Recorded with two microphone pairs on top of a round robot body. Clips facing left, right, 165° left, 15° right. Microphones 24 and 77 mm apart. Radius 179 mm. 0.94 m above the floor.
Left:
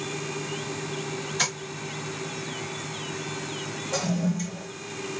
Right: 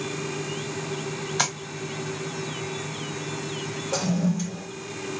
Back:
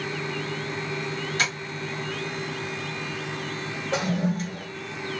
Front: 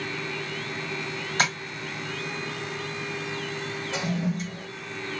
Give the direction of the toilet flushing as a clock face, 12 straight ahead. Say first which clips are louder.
Right 2 dB, back 4 dB; 5 o'clock.